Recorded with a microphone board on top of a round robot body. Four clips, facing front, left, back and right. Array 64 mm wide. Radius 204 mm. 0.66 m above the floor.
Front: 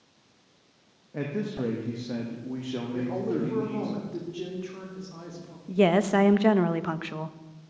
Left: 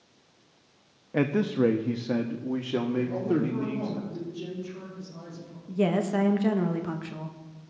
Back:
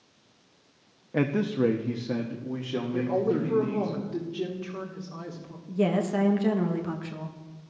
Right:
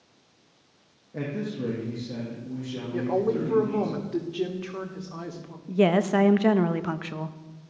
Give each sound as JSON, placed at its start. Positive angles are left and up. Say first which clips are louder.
{"t": 1.1, "sound": "a man speaking", "louder": "left 7 dB, back 5 dB", "azimuth_deg": 130, "distance_m": 1.0}
{"t": 2.9, "sound": "a woman speaking", "louder": "right 5 dB, back 4 dB", "azimuth_deg": -100, "distance_m": 3.0}
{"t": 5.7, "sound": "a woman speaking", "louder": "right 4 dB, front 4 dB", "azimuth_deg": -30, "distance_m": 1.3}